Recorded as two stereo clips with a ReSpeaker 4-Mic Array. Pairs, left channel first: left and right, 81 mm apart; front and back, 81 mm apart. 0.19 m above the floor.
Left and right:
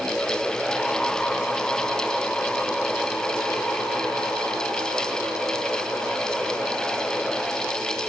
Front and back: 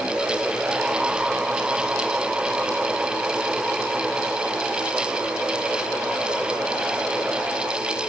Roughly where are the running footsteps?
I don't hear running footsteps.